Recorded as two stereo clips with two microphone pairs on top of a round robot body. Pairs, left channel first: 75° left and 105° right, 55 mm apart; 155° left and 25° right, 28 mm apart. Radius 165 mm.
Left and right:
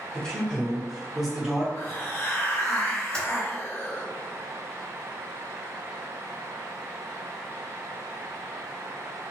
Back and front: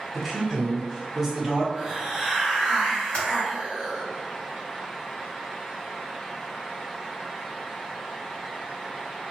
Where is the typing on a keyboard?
135° left, 1.6 m.